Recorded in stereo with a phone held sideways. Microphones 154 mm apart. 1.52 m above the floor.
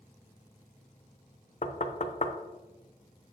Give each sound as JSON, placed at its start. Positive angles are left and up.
{"t": 1.6, "sound": "knocking", "side_deg": 50, "distance_m": 0.7}